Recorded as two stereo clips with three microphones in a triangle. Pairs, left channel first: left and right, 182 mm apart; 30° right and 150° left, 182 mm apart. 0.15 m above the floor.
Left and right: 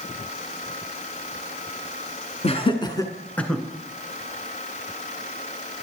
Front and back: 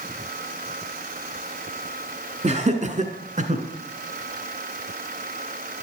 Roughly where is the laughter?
Behind left.